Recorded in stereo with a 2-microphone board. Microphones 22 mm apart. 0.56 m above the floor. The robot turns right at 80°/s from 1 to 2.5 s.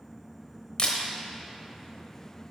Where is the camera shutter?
50° left (ahead or behind), 1.0 m.